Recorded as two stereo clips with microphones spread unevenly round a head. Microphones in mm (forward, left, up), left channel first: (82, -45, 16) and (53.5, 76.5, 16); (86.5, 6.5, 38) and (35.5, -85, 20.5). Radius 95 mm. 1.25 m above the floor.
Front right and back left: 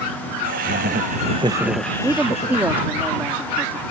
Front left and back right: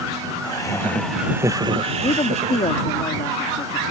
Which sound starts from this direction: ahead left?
A woman speaking, at 2.0 s.